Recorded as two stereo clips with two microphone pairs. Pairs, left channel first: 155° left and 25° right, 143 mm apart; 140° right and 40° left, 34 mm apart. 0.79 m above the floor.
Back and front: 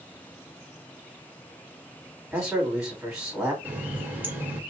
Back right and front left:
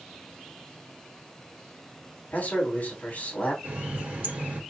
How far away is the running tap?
About 1.5 m.